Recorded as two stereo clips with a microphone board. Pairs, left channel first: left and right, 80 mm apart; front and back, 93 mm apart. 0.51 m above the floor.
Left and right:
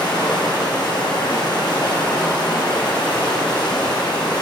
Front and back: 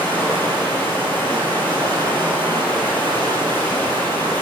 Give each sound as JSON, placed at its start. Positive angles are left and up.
{"t": 0.0, "sound": "running water", "azimuth_deg": 65, "distance_m": 1.7}